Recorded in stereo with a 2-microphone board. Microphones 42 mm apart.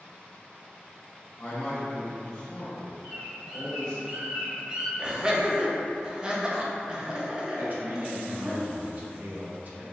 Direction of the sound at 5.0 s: 25° right (ahead or behind).